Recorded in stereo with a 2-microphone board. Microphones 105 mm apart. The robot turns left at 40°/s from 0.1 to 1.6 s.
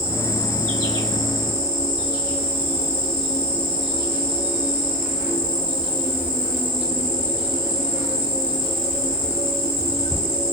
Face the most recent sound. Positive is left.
turn(degrees=-160)